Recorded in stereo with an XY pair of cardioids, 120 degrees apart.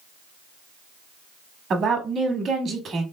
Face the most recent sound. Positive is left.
turn(degrees=-50)